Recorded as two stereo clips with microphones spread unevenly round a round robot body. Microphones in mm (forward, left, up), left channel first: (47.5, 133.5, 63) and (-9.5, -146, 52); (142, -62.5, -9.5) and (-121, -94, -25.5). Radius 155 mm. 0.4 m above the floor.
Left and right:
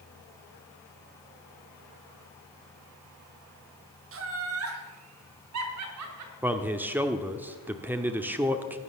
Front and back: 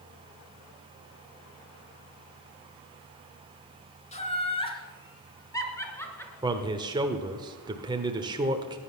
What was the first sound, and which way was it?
Laughter, 60° right.